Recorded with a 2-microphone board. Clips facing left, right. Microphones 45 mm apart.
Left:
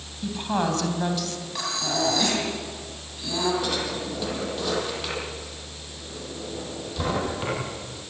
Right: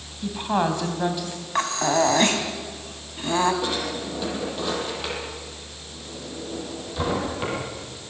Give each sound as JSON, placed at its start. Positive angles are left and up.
{"t": 0.2, "sound": "a woman speaking", "side_deg": -15, "distance_m": 3.5}
{"t": 1.6, "sound": "breathing", "side_deg": -45, "distance_m": 3.5}
{"t": 3.6, "sound": "a drawer", "side_deg": -15, "distance_m": 7.5}